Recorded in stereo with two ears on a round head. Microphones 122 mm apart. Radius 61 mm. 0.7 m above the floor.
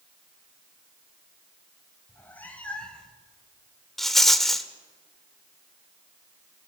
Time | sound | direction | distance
2.1 | a cat meowing | 15° left (ahead or behind) | 2.5 m
4.0 | a rattle | 5° left (ahead or behind) | 1.3 m